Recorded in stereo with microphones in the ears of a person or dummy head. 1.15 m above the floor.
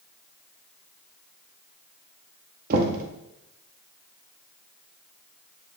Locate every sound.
2.7 s knocking: 45° right (ahead or behind), 1.1 m